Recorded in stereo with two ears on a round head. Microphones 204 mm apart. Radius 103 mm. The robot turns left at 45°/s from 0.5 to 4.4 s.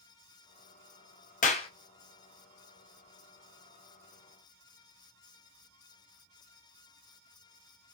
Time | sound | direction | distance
1.4 | a clap | 35° left (ahead or behind) | 0.5 m